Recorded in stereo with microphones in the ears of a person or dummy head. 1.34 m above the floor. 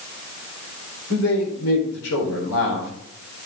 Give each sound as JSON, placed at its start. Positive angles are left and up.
{"t": 1.1, "sound": "a man speaking", "side_deg": 80, "distance_m": 4.0}